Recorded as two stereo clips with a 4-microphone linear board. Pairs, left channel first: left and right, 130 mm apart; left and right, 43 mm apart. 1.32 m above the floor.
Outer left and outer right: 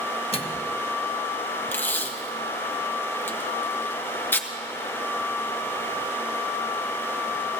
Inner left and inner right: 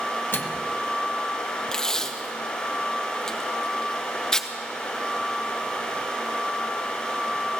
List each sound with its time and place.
0.3 s a microwave: 50° left (ahead or behind), 1.1 m
1.7 s tape being pulled: 15° left (ahead or behind), 0.9 m